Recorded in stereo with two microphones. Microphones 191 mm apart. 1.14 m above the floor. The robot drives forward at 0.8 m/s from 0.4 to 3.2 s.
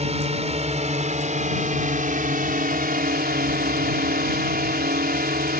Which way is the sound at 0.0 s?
35° right (ahead or behind).